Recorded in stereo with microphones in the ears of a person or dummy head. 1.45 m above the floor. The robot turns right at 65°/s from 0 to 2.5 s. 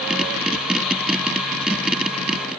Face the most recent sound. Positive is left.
No sound to turn to.